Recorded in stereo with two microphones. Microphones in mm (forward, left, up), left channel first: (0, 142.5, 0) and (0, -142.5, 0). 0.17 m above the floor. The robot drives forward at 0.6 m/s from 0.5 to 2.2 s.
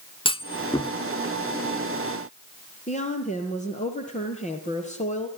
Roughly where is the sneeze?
I don't hear a sneeze.